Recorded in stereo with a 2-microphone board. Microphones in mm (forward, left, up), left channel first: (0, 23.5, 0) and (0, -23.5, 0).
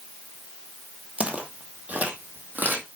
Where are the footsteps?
25° right (ahead or behind), 1.7 m; by 2.9 s 40° right (ahead or behind), 2.5 m.